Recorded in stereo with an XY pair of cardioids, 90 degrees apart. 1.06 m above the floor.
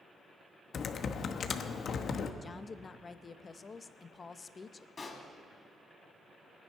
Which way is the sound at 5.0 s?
35° left.